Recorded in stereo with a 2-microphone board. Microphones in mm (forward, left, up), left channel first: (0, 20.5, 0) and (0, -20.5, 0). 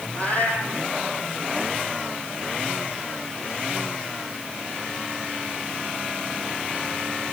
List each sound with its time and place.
0.1 s a cat meowing: 40° left (ahead or behind), 4.5 m